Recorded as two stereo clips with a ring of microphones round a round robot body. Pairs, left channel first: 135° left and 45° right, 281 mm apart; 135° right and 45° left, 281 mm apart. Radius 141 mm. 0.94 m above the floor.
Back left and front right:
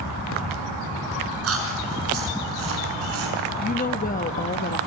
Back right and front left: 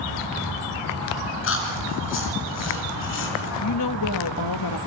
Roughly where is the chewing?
Right.